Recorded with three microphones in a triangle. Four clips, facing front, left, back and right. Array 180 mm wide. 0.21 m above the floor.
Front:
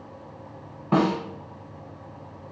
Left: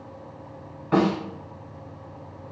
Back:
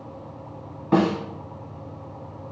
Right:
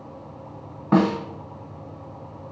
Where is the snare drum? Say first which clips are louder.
Right 2 dB, back 2 dB; 80° right, 1.1 m.